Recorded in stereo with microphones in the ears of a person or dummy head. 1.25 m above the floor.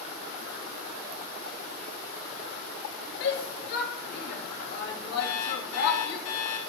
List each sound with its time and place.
3.2 s a shout: 60° left (ahead or behind), 2.5 m
5.2 s an alarm clock: 80° left, 3 m